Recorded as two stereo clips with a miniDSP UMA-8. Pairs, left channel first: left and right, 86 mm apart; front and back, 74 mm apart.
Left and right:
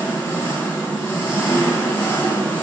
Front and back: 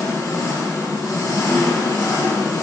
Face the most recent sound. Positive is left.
turn(degrees=25)